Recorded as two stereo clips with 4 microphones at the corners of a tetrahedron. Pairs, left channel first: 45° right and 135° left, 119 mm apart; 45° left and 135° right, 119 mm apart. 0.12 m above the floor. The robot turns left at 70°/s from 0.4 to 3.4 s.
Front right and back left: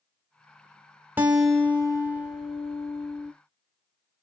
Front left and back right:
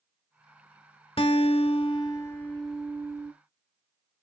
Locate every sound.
1.2 s a guitar: 65° left, 1.5 m; by 3.3 s 85° right, 1.5 m